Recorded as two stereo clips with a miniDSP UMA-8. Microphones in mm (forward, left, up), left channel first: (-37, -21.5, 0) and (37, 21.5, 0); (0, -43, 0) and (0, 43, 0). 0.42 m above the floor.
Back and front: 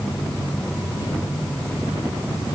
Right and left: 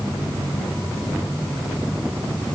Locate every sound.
Only background noise.